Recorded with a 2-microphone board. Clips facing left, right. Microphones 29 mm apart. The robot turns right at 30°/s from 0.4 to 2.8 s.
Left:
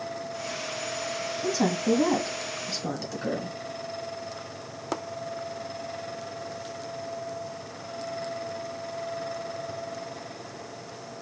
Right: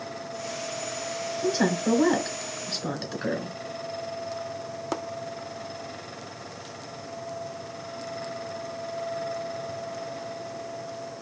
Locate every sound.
1.4 s a woman speaking: 70° right, 2.5 m; by 3.6 s 25° right, 2.5 m